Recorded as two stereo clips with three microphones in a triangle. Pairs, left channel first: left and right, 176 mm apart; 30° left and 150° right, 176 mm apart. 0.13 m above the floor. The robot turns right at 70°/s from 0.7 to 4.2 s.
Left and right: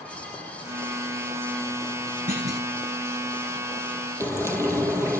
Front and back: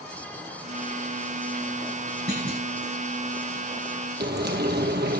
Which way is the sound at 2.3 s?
130° right.